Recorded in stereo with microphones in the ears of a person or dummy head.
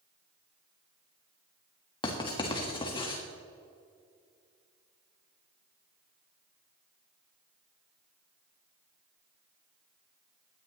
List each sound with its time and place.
2.0 s writing: 25° left (ahead or behind), 1.6 m